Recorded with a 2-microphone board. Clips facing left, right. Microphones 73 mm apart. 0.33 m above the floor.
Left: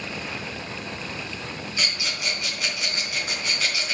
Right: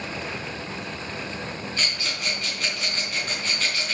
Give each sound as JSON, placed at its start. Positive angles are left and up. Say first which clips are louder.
{"t": 1.8, "sound": "a rattle", "louder": "left 2 dB", "side_deg": 5, "distance_m": 5.0}